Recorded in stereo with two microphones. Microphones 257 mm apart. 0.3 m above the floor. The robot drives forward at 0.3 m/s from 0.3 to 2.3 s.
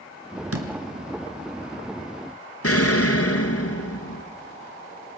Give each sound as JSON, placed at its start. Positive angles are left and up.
{"t": 0.5, "sound": "a door slam", "side_deg": -65, "distance_m": 3.0}
{"t": 2.6, "sound": "an explosion", "side_deg": 60, "distance_m": 2.5}